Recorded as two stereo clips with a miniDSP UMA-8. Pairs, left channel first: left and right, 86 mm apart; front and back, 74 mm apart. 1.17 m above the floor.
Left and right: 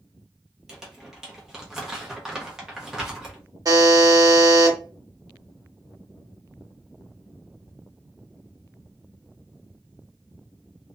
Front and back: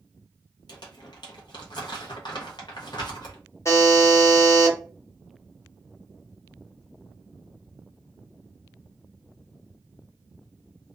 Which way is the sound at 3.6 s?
45° right.